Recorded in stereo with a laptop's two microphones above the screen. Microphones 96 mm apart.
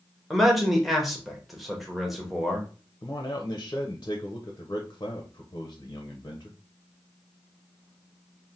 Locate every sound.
0.3 s a man speaking: centre (ahead or behind), 0.9 m
3.0 s a man speaking: 35° left (ahead or behind), 0.6 m